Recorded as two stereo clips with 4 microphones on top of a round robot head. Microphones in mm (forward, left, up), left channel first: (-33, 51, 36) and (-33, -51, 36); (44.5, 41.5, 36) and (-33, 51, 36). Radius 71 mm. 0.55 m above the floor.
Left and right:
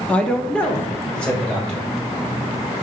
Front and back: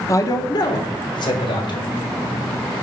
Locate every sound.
0.1 s a man speaking: 15° left, 0.9 m; by 1.9 s 10° left, 2.5 m